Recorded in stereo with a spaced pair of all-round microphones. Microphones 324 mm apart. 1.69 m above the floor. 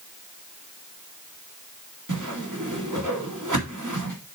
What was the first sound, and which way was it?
A whoosh, 65° right (ahead or behind).